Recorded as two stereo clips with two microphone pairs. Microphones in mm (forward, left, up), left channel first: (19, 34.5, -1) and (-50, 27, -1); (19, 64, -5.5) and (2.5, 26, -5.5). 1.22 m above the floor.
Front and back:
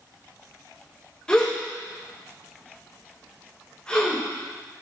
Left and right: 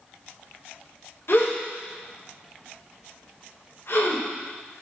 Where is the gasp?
80° left, 1.5 m.